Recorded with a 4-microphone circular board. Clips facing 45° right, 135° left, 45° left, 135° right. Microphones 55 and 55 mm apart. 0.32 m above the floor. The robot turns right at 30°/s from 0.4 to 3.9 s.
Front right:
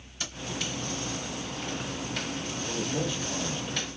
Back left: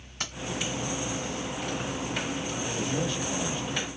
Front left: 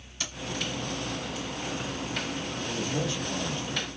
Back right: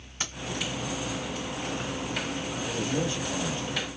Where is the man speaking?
155° right, 1.3 m; by 3.9 s 120° right, 1.3 m.